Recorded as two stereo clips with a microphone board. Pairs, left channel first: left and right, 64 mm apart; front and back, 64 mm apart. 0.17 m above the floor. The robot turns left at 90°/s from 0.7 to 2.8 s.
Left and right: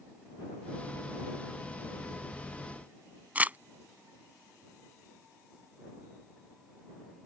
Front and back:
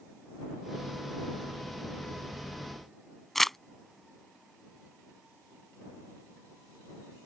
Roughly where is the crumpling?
Right.